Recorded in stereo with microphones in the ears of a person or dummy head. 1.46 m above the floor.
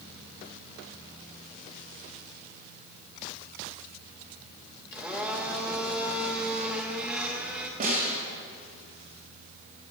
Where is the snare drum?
50° right (ahead or behind), 3 m.